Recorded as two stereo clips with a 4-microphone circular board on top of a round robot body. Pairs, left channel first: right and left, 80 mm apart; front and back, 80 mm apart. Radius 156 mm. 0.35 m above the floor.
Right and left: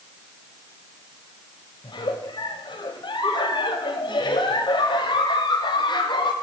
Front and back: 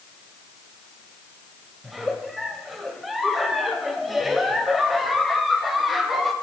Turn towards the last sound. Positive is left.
turn(degrees=-90)